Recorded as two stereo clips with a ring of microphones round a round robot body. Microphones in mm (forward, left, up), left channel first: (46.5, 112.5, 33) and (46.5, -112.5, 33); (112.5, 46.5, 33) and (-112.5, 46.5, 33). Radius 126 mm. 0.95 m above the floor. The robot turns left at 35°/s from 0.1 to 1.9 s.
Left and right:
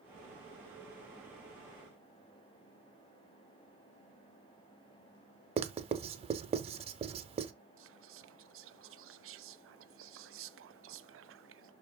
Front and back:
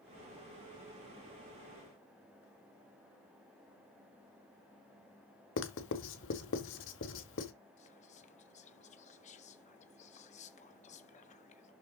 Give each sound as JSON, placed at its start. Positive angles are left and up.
{"t": 5.6, "sound": "writing", "azimuth_deg": -30, "distance_m": 1.0}
{"t": 7.8, "sound": "whispering", "azimuth_deg": -60, "distance_m": 0.8}